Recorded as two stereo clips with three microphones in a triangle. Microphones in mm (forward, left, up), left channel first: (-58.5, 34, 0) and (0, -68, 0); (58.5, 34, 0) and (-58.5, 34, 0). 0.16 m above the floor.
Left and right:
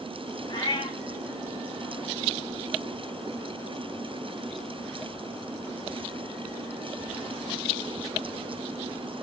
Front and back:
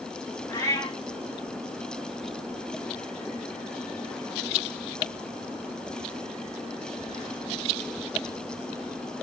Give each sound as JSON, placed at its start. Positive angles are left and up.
{"t": 0.5, "sound": "a cat meowing", "azimuth_deg": 70, "distance_m": 7.0}